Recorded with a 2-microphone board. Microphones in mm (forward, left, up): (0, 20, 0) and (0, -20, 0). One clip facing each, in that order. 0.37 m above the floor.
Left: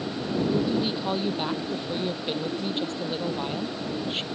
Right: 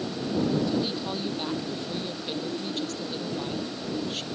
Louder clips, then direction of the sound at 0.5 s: Left 1 dB; 20° left (ahead or behind).